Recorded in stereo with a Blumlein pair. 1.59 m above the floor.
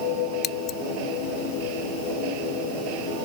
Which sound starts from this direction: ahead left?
Scissors, at 0.4 s.